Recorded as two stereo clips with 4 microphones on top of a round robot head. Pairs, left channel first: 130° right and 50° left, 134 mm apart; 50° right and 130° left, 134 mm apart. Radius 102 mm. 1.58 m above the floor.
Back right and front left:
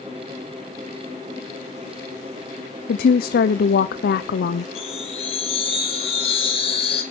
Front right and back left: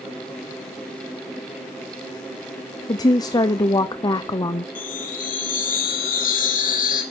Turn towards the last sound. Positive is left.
turn(degrees=-75)